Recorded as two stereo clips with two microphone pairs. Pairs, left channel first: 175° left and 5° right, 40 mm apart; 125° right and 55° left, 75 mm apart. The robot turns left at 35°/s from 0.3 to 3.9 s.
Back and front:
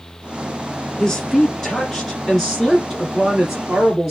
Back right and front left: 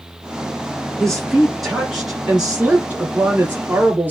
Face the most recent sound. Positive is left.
turn(degrees=60)